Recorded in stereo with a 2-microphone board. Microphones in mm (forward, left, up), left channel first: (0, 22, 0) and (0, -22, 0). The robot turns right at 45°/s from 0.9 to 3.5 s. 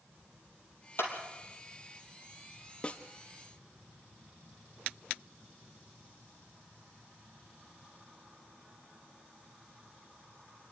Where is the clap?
55° left (ahead or behind), 3.5 m; by 1.1 s 50° left (ahead or behind), 3.5 m.